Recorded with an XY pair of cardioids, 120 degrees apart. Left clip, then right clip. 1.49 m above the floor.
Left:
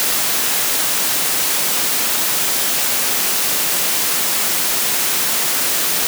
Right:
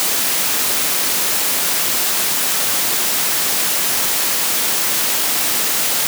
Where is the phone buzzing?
No phone buzzing in this recording.